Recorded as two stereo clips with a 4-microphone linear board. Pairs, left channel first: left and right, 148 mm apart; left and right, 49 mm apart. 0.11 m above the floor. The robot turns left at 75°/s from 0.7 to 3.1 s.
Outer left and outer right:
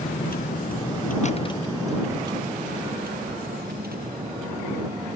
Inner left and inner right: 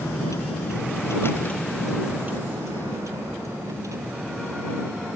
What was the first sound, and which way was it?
A vehicle, 80° left.